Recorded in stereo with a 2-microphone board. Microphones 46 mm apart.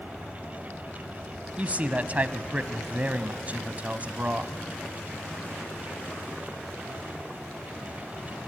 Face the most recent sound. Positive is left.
turn(degrees=-35)  # may be behind; listen again after turning